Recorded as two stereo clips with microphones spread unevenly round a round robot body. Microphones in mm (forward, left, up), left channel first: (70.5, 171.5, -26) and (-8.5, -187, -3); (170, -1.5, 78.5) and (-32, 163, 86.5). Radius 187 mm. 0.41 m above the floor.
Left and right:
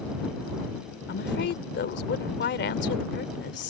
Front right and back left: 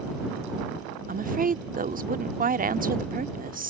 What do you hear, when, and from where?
1.1 s a woman speaking: 105° left